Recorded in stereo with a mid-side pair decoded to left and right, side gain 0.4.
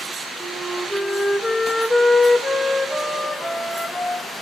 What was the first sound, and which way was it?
A flute, 10° left.